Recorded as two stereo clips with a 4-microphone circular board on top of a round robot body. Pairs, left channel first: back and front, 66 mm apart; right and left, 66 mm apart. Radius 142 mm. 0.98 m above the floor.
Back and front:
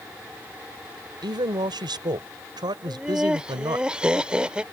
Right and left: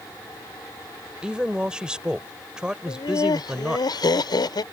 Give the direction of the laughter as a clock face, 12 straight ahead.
3 o'clock.